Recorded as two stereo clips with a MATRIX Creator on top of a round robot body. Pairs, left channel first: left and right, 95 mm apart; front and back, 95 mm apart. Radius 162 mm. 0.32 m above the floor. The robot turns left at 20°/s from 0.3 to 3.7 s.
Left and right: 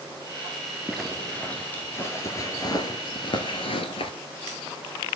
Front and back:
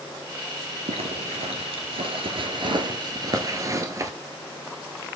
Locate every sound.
0.9 s a zipper: straight behind, 1.4 m; by 4.1 s 120° left, 1.4 m